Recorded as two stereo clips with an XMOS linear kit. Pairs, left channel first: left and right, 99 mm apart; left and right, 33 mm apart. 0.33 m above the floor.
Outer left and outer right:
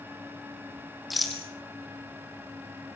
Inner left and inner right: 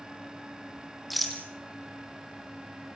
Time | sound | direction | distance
1.1 | a rattle | centre (ahead or behind) | 3.5 m